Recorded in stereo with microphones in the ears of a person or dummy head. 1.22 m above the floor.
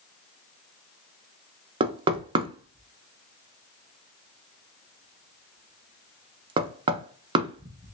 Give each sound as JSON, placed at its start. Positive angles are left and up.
{"t": 1.8, "sound": "knocking", "side_deg": -25, "distance_m": 0.5}